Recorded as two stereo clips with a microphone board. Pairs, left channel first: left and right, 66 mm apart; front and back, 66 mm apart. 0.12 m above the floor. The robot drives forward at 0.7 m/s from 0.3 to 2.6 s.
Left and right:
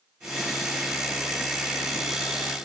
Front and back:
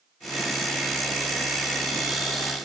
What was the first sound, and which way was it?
Only background noise.